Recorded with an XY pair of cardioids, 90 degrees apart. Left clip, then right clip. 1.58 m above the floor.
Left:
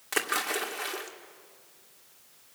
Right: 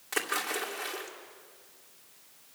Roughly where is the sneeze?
I don't hear a sneeze.